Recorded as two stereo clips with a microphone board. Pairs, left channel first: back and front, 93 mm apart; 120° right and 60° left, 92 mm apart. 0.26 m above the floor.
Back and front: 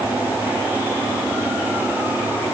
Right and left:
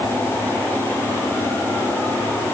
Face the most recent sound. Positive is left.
No sound to turn to.